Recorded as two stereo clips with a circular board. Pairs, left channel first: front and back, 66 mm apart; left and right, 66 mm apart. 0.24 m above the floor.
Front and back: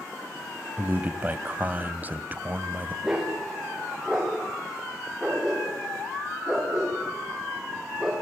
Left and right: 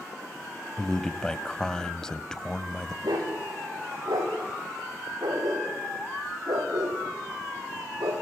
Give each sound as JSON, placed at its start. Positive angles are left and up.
{"t": 0.8, "sound": "a man speaking", "azimuth_deg": 160, "distance_m": 1.4}
{"t": 3.0, "sound": "a dog barking", "azimuth_deg": -100, "distance_m": 7.5}